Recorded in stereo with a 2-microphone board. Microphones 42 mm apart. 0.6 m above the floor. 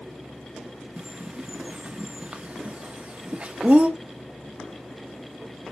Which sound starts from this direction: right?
A bird, at 1.0 s.